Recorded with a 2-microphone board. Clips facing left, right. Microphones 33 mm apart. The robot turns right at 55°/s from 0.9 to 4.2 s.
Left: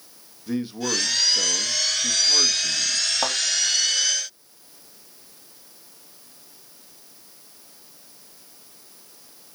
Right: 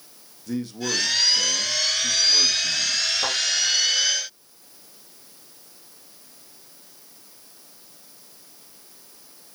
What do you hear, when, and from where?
0.5 s a man speaking: 35° left, 0.8 m; by 3.0 s 150° left, 0.8 m
3.2 s a thud: 80° left, 3 m